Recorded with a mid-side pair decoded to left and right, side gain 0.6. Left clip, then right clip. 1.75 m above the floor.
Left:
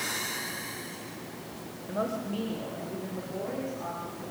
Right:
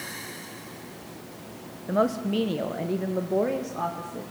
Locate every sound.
1.9 s a woman speaking: 45° right, 1.7 m; by 4.2 s 75° right, 3 m